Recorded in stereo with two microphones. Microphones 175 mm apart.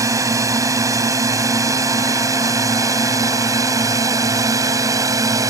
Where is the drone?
20° right (ahead or behind).